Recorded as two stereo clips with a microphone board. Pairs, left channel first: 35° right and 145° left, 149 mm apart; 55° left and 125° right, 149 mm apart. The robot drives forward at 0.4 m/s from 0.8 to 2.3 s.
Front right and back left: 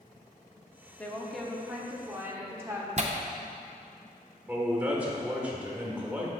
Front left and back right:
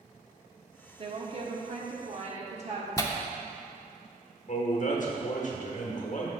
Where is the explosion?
I don't hear an explosion.